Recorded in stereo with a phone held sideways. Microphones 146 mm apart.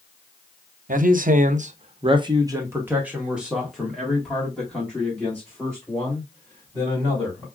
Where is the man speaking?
65° right (ahead or behind), 0.6 m; by 7.5 s 10° left (ahead or behind), 3 m.